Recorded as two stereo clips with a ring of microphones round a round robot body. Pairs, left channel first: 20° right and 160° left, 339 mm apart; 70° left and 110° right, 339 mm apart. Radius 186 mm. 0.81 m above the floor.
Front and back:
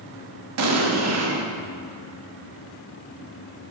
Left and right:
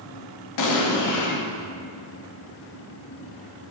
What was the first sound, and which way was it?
An explosion, 110° left.